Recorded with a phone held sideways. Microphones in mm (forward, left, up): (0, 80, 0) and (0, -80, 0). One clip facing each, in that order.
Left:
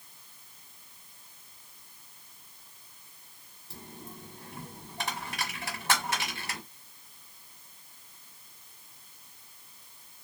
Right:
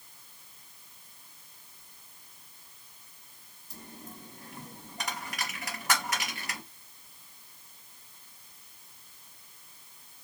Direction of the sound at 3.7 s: 30° left (ahead or behind).